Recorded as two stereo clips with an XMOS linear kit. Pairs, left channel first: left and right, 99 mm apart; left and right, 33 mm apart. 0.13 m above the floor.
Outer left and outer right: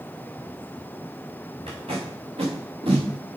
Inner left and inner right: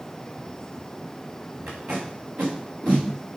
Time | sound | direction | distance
1.7 | tape being pulled | 70° right (ahead or behind) | 2.5 m